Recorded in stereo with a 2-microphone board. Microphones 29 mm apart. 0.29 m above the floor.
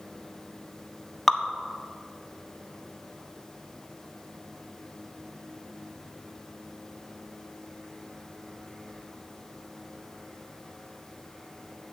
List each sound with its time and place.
1.3 s dripping: 5° left (ahead or behind), 0.6 m